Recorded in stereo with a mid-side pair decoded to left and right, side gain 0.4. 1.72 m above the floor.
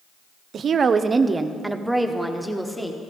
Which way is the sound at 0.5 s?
60° right.